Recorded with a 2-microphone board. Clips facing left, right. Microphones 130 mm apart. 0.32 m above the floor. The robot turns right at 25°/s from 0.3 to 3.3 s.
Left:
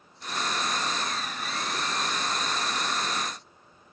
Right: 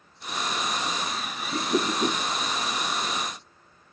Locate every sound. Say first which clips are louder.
1.5 s a whoosh: right 8 dB; 65° right (ahead or behind); by 2.2 s 85° right